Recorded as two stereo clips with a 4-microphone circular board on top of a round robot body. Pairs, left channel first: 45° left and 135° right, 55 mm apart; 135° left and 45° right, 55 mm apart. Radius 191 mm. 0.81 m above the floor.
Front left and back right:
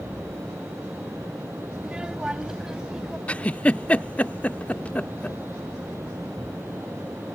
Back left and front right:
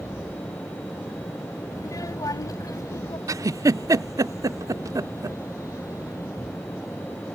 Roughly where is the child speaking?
Behind left.